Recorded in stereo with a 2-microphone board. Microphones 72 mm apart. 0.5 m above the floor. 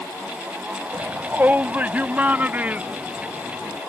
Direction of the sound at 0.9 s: 25° right (ahead or behind).